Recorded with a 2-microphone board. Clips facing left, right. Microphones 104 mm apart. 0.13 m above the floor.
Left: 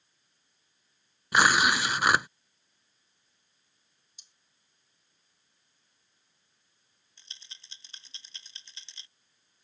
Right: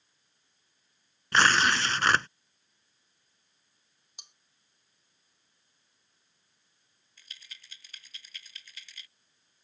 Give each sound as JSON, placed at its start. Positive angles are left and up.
{"t": 1.3, "sound": "tearing paper", "side_deg": 10}
{"t": 4.2, "sound": "cutlery clinking", "side_deg": -70}
{"t": 7.2, "sound": "a rattle", "side_deg": 25}